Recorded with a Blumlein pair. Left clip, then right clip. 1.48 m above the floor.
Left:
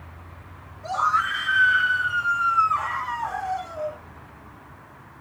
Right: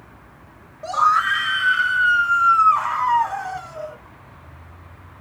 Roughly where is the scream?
Ahead right.